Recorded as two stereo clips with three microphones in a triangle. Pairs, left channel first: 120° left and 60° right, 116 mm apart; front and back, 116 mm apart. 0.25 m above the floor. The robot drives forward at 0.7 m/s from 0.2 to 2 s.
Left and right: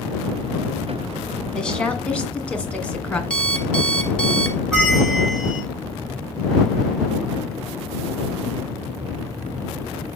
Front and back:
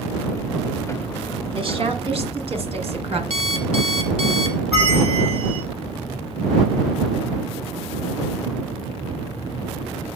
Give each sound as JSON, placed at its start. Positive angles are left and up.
{"t": 1.5, "sound": "a woman speaking", "azimuth_deg": -160, "distance_m": 1.7}
{"t": 3.3, "sound": "an alarm clock", "azimuth_deg": -160, "distance_m": 1.4}
{"t": 4.7, "sound": "a bell", "azimuth_deg": -155, "distance_m": 6.5}